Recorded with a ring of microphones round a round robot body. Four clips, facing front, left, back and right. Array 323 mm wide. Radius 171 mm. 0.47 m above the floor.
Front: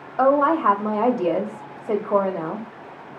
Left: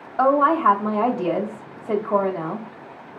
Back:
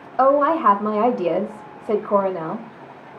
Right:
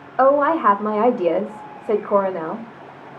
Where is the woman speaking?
105° right, 0.7 m.